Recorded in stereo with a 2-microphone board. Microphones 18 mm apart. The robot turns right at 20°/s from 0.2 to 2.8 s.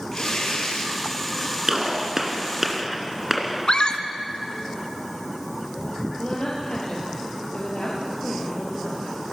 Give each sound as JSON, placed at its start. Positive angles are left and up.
{"t": 0.1, "sound": "tearing paper", "side_deg": 45, "distance_m": 4.5}
{"t": 1.7, "sound": "a gunshot", "side_deg": -35, "distance_m": 2.5}
{"t": 3.7, "sound": "a scream", "side_deg": 50, "distance_m": 1.9}
{"t": 6.2, "sound": "a woman speaking", "side_deg": 65, "distance_m": 4.5}